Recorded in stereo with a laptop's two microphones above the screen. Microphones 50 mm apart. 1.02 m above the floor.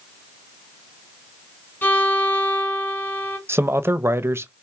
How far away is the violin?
About 3 m.